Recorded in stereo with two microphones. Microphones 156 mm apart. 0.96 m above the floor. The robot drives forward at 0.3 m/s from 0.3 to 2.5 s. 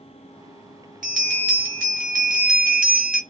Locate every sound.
1.0 s a bell: 65° right (ahead or behind), 1.6 m; by 3.2 s 60° right (ahead or behind), 1.6 m